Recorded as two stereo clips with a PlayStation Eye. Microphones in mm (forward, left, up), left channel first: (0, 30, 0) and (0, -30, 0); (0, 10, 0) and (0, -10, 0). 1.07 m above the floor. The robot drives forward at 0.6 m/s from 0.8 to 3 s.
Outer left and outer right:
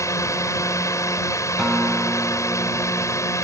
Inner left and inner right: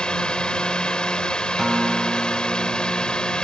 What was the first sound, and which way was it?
A drone, 60° left (ahead or behind).